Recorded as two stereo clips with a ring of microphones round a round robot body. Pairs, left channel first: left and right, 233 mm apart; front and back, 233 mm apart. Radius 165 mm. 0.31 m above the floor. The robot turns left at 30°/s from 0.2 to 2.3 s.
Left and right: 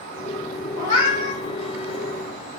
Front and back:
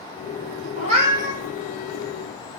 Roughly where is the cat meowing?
Behind left.